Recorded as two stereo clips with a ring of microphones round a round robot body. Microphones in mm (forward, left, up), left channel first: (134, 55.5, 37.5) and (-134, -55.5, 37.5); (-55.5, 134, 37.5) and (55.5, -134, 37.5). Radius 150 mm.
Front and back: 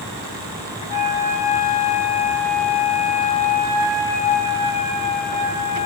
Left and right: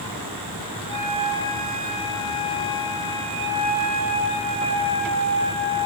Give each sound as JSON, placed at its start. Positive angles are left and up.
{"t": 0.9, "sound": "a flute", "azimuth_deg": -85, "distance_m": 6.0}